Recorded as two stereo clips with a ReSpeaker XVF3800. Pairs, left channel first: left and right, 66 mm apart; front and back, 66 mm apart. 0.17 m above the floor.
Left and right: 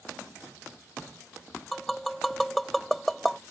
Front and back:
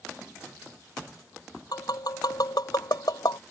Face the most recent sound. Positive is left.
turn(degrees=0)